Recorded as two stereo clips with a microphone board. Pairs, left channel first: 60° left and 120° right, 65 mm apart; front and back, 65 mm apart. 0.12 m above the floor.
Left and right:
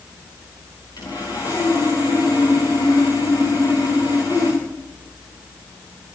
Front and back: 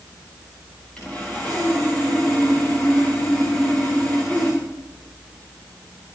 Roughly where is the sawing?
Left.